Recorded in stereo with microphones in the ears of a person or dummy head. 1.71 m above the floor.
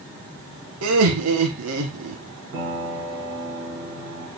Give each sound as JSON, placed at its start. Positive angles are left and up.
{"t": 0.8, "sound": "laughter", "side_deg": -80, "distance_m": 1.5}
{"t": 2.5, "sound": "a piano", "side_deg": -50, "distance_m": 3.0}